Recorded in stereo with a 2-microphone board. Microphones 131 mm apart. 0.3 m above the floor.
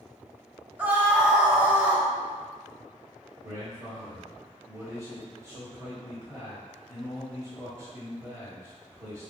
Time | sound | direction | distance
0.8 | a scream | 10° right (ahead or behind) | 1.0 m
3.4 | a man speaking | 25° right (ahead or behind) | 1.2 m